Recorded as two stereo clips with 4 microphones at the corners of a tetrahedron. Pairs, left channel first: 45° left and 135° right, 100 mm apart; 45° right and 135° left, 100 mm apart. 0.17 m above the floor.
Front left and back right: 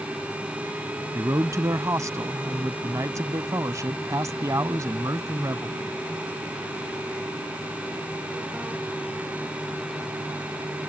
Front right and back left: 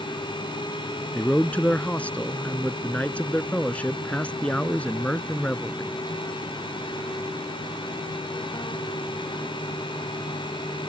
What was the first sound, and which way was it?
A man speaking, 110° right.